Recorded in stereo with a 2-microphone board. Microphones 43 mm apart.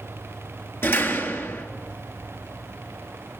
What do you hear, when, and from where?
0.8 s a door slam: 60° left (ahead or behind), 4 m